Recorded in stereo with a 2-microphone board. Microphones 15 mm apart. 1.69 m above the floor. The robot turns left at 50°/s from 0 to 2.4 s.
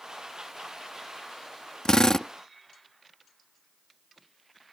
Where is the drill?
50° left (ahead or behind); by 2.3 s 30° left (ahead or behind).